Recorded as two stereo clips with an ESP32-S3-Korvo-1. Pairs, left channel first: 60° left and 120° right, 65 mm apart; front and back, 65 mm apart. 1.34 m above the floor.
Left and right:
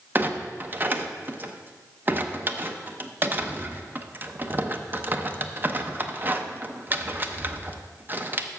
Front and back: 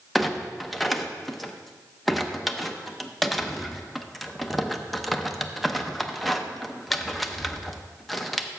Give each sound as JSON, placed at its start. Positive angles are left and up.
{"t": 0.1, "sound": "a clunk", "azimuth_deg": -90, "distance_m": 0.6}